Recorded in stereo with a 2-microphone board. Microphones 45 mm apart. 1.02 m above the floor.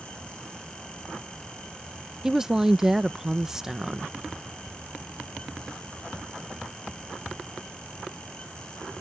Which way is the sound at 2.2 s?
10° right (ahead or behind).